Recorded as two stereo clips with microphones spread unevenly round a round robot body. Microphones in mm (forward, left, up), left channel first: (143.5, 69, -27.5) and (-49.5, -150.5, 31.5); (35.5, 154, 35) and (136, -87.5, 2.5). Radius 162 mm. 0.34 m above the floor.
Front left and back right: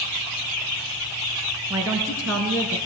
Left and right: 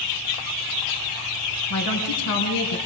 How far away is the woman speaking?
About 5 m.